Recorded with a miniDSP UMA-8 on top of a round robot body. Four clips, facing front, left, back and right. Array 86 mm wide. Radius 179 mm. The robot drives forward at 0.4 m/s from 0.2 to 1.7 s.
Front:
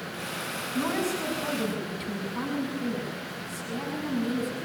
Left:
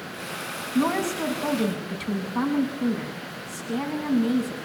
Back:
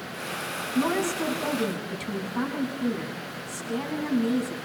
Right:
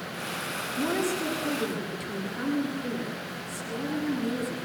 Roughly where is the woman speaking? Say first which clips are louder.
Left 5 dB, back 3 dB; left.